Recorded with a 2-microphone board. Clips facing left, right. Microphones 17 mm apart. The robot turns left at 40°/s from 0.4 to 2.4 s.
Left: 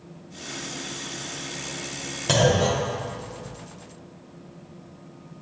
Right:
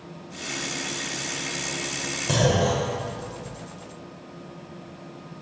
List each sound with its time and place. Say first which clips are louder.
2.3 s a clunk: left 2 dB; 20° left (ahead or behind), 1.4 m; by 3.5 s 15° left (ahead or behind), 1.4 m